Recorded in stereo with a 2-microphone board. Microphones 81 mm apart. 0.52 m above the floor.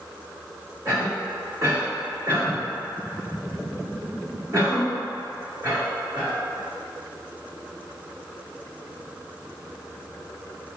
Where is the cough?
35° right (ahead or behind), 1.8 m.